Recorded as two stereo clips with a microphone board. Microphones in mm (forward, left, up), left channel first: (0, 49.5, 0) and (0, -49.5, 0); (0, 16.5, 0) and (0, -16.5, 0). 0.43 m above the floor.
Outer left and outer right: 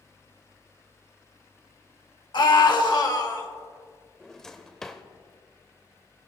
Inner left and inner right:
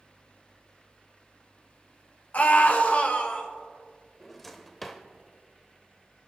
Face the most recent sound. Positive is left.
turn(degrees=5)  # may be behind; listen again after turning